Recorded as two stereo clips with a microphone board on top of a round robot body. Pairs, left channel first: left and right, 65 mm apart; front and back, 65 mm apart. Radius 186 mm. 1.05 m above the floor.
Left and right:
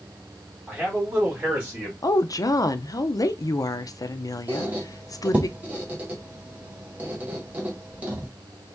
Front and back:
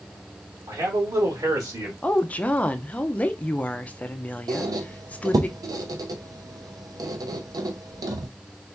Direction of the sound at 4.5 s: 160° right.